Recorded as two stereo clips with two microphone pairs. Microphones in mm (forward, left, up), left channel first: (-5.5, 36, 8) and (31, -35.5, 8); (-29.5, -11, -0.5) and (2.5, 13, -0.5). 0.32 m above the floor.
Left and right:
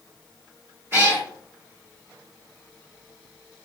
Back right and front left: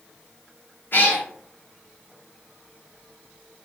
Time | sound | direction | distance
0.9 | a cat meowing | 120° right | 2.0 m